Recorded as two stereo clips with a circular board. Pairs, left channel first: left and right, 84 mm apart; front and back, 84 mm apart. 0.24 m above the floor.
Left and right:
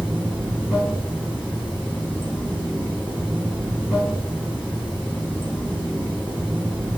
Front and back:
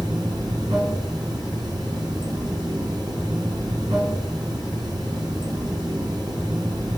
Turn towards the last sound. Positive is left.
turn(degrees=-165)